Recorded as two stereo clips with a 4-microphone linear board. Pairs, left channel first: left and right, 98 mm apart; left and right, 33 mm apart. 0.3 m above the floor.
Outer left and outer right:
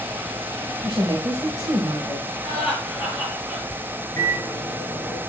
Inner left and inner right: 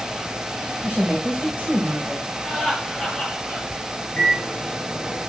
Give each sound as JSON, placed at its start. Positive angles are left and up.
{"t": 0.8, "sound": "a woman speaking", "side_deg": -40, "distance_m": 1.7}
{"t": 2.4, "sound": "laughter", "side_deg": -10, "distance_m": 5.5}
{"t": 4.2, "sound": "a microwave", "side_deg": 20, "distance_m": 5.5}